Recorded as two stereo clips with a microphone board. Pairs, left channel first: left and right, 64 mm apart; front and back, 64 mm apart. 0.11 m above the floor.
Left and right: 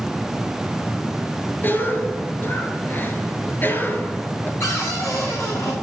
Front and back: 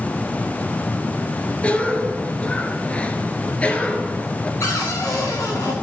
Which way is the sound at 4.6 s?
45° left.